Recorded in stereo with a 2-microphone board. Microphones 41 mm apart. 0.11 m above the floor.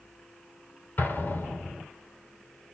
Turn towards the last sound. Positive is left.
turn(degrees=50)  # may be behind; listen again after turning